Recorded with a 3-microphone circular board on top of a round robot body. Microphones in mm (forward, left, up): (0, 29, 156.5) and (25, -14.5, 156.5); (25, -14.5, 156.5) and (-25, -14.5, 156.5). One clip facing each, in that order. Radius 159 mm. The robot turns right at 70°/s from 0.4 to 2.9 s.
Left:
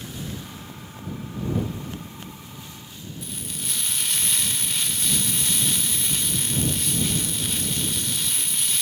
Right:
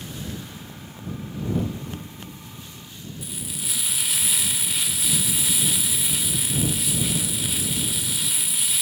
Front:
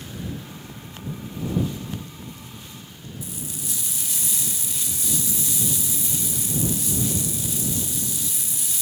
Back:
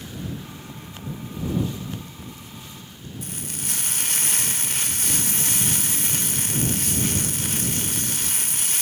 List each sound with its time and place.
3.2 s frying: 145° right